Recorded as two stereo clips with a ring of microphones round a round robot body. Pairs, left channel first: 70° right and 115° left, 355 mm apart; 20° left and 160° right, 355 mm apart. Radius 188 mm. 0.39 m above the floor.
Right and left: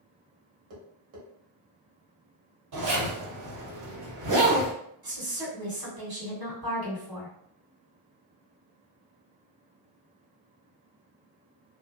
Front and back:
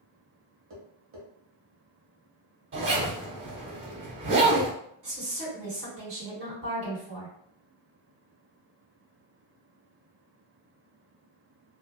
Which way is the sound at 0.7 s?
150° left.